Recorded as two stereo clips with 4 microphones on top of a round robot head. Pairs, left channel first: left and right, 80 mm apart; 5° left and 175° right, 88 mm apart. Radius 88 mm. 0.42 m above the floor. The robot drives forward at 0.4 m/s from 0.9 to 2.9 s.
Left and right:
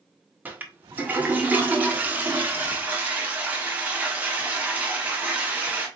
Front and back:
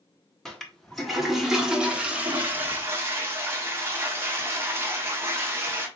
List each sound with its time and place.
0.5 s a toilet flushing: 75° right, 1.5 m; by 5.9 s 145° right, 1.6 m